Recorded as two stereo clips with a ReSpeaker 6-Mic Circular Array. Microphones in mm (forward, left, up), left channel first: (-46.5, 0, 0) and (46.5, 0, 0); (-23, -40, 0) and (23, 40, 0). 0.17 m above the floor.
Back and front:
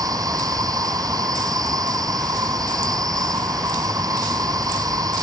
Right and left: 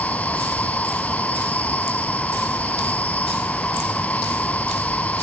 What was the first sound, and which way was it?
An insect, 45° right.